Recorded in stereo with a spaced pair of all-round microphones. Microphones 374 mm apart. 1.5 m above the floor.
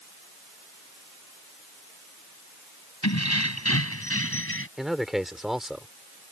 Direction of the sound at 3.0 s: 45° left (ahead or behind).